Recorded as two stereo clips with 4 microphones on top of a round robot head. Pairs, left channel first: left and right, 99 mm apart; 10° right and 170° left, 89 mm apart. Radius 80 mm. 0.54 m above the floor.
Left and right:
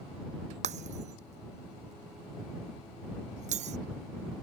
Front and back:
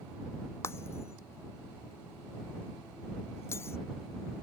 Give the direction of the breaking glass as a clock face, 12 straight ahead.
3 o'clock.